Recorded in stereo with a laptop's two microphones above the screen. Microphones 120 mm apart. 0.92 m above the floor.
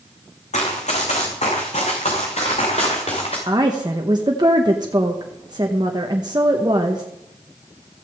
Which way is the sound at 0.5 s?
75° left (ahead or behind).